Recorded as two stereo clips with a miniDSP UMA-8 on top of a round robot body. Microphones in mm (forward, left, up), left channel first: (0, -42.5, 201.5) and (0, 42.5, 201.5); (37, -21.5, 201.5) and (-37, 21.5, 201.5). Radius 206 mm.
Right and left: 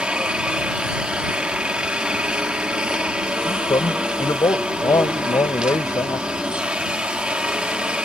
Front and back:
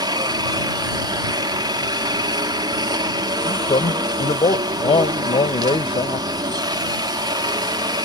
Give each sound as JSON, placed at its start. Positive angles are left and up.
{"t": 0.0, "sound": "a helicopter", "azimuth_deg": 165}
{"t": 3.5, "sound": "a man speaking", "azimuth_deg": -40}